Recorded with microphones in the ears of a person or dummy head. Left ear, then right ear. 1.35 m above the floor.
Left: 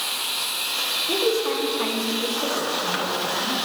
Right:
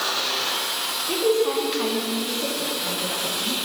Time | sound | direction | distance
1.1 | a woman speaking | 10° left (ahead or behind) | 3 m